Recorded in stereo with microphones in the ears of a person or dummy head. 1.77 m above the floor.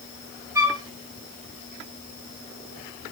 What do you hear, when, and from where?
0.6 s a flute: 10° right (ahead or behind), 1.0 m